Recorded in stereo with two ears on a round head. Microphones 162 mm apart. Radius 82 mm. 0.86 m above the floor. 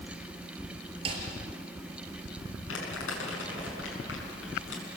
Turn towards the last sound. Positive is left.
turn(degrees=85)